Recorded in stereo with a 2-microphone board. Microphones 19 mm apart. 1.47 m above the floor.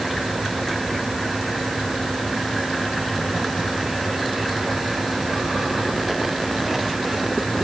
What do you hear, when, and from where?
Only background noise.